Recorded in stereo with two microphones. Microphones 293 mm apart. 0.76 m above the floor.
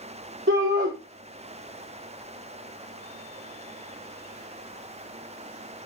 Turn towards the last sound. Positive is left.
turn(degrees=-40)  # may be behind; listen again after turning